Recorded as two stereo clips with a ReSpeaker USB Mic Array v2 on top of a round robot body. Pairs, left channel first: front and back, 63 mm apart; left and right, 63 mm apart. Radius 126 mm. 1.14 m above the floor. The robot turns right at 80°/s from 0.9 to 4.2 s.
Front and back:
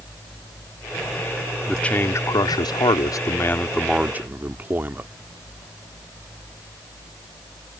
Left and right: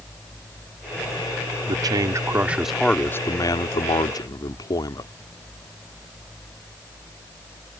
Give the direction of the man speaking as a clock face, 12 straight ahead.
3 o'clock.